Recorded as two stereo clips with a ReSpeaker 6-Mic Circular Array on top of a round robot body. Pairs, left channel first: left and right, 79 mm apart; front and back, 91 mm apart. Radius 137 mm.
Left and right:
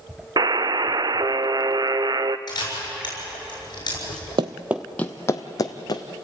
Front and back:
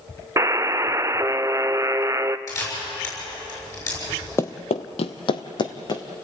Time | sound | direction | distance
0.4 | a buzzer | 125° right | 0.7 m
2.5 | a camera shutter | 55° left | 7 m
4.4 | running footsteps | 65° right | 0.6 m